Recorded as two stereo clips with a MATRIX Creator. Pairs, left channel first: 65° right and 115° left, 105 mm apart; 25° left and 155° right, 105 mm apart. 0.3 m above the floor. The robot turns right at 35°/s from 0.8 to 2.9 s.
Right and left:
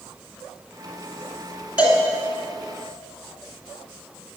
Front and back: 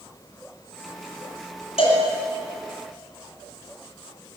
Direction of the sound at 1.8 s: 35° left.